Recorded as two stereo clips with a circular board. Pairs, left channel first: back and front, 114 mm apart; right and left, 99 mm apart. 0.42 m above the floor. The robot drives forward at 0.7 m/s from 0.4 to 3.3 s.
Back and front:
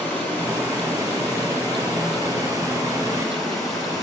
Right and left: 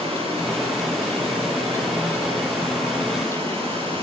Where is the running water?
105° left, 7.5 m; by 4.0 s 120° left, 8 m.